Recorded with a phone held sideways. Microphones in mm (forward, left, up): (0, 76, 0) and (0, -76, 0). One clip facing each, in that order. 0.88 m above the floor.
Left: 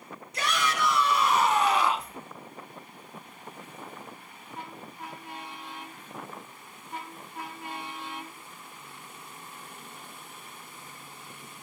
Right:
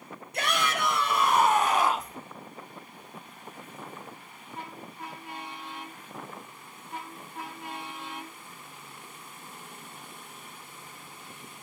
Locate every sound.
0.3 s a shout: 55° right (ahead or behind), 3 m; by 2.2 s 40° right (ahead or behind), 1.5 m